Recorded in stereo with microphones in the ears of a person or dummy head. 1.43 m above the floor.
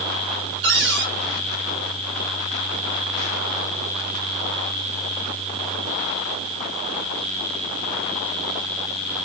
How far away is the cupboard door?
About 1.5 m.